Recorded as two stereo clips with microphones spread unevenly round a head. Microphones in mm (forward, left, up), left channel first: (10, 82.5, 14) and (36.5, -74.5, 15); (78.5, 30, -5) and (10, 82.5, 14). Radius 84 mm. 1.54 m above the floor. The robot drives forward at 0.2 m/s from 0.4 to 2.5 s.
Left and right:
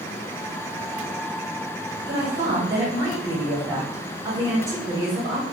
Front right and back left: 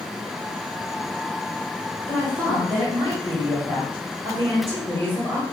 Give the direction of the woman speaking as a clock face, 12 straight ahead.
5 o'clock.